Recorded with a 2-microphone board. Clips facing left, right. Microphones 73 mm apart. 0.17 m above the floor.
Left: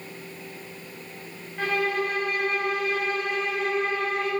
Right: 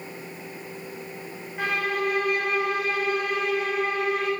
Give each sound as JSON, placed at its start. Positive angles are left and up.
{"t": 1.6, "sound": "a violin", "side_deg": -10, "distance_m": 3.5}